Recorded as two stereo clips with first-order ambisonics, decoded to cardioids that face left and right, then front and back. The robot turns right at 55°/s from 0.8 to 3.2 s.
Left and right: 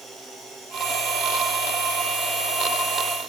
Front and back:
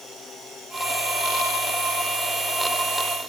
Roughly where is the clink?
I don't hear a clink.